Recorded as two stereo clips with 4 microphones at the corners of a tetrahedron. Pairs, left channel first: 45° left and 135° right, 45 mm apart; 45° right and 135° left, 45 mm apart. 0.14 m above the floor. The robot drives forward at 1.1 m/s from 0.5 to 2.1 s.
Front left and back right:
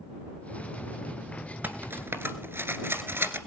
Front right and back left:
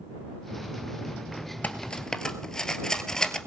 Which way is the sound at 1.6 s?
95° right.